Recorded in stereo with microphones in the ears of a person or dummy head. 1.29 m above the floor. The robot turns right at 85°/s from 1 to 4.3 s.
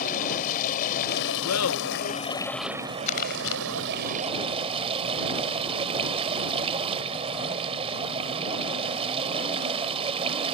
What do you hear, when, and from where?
0.0 s running water: 45° left; by 10.5 s 35° right
1.4 s laughter: 85° left; by 3.0 s 145° right
3.1 s crumpling: 35° left (ahead or behind); by 3.6 s 80° left